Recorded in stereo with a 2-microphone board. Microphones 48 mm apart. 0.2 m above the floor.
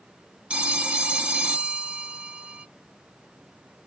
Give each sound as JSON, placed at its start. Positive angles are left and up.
{"t": 0.5, "sound": "a phone ringing", "side_deg": -25, "distance_m": 0.6}